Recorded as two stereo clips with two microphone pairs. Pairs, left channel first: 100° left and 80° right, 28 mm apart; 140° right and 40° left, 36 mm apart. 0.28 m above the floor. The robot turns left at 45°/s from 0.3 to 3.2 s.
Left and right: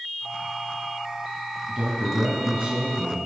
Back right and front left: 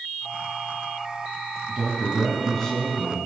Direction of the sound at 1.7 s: 35° right.